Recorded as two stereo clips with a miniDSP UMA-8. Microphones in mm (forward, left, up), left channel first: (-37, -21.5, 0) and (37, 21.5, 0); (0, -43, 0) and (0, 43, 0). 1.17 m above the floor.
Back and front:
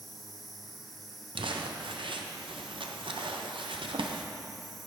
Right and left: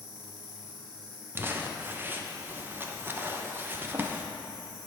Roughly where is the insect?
Behind left.